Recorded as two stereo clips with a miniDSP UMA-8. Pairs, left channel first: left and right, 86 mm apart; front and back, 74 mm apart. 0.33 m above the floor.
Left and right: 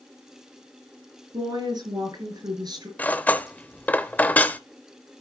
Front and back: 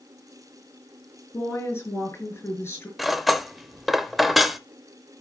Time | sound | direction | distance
1.3 | a woman speaking | 55° right | 5.5 m
3.0 | cutlery clinking | 95° left | 0.6 m